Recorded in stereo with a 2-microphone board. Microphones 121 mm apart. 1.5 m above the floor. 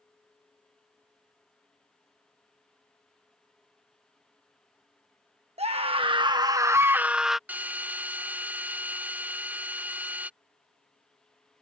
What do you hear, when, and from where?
5.6 s a scream: 55° right (ahead or behind); by 7.4 s centre (ahead or behind)
7.5 s a drill: 15° right (ahead or behind)